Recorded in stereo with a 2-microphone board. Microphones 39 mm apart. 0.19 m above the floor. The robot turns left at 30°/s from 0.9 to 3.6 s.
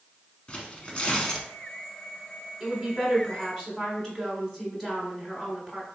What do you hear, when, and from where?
0.5 s tearing paper: 30° left (ahead or behind), 0.8 m; by 1.5 s 20° left (ahead or behind), 0.8 m
2.6 s a woman speaking: 5° right (ahead or behind), 1.2 m; by 5.9 s 10° left (ahead or behind), 1.2 m